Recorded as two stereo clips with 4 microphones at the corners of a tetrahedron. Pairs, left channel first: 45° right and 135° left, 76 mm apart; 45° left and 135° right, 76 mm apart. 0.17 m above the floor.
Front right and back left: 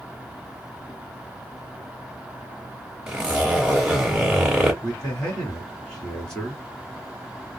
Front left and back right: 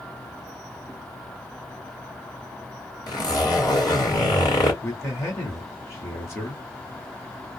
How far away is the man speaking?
About 1.8 m.